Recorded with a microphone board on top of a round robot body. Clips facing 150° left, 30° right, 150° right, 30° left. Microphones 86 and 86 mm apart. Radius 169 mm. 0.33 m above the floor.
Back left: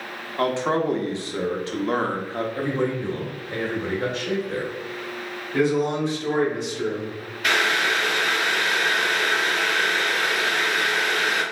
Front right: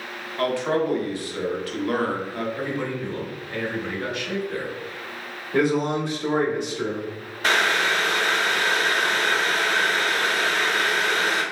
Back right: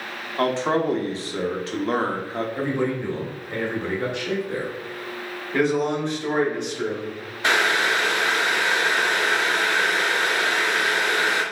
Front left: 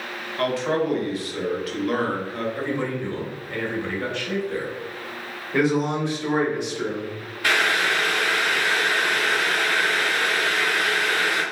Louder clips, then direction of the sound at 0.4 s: Back left 1 dB, back right 1 dB; 170° right.